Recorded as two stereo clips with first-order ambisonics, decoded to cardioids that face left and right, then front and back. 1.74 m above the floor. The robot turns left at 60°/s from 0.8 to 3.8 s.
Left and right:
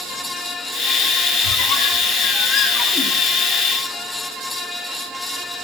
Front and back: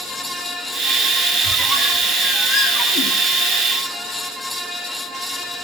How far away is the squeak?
About 2 m.